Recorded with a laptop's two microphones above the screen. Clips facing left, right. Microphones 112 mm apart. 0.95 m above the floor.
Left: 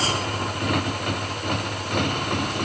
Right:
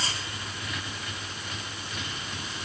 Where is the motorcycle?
60° left (ahead or behind); by 2.7 s 65° left (ahead or behind).